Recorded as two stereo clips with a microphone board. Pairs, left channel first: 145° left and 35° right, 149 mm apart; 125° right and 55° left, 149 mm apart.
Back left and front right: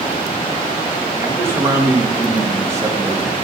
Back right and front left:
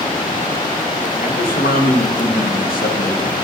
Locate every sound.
1.2 s a man speaking: 105° right, 1.9 m